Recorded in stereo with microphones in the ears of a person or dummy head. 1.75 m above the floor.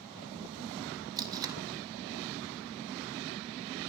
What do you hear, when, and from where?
1.2 s tape being pulled: 20° right (ahead or behind), 0.6 m